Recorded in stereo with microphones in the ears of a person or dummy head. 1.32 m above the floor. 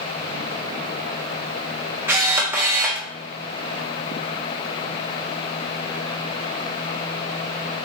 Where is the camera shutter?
5° right (ahead or behind), 0.8 m.